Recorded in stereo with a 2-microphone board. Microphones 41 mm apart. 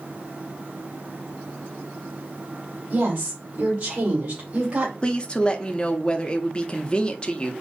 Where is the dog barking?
No dog barking in this recording.